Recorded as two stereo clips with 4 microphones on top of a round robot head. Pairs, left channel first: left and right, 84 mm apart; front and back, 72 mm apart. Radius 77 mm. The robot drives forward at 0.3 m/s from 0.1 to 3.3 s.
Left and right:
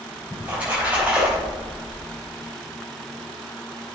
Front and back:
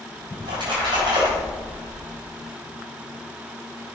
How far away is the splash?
About 4 m.